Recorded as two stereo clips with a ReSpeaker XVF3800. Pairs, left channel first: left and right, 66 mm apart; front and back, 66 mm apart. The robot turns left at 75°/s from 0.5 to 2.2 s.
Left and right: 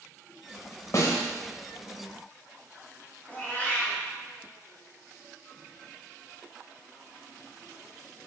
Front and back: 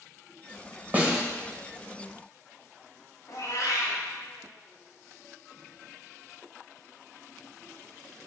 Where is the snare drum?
120° left, 1.2 m; by 1.2 s 100° left, 1.2 m.